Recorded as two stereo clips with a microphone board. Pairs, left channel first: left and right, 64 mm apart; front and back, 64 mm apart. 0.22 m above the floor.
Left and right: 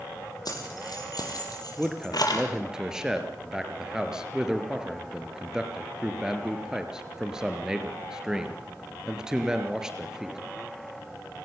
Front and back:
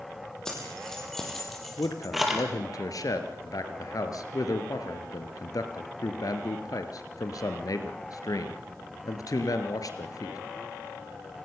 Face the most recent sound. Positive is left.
turn(degrees=-10)